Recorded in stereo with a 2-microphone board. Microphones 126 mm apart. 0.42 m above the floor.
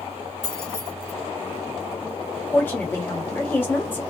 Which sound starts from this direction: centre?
A woman speaking, at 2.5 s.